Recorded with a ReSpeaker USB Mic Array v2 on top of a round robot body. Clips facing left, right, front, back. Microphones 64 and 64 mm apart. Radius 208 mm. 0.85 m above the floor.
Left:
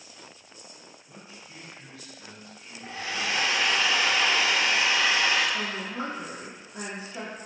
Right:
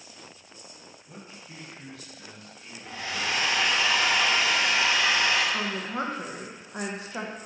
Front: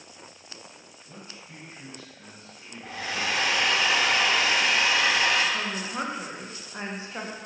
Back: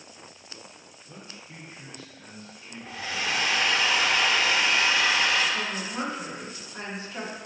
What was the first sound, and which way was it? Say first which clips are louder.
A man speaking: right 3 dB, even; 45° right.